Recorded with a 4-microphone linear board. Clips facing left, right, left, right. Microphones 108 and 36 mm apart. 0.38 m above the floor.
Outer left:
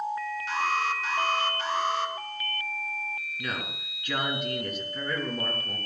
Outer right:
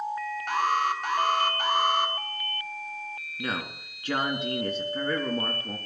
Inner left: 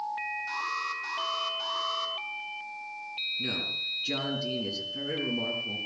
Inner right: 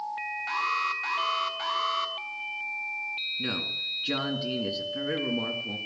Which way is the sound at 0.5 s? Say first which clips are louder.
Outer right 4 dB, inner right 9 dB; 55° right (ahead or behind).